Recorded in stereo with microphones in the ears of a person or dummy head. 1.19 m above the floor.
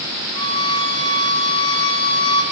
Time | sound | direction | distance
0.3 | a violin | 35° left (ahead or behind) | 2.5 m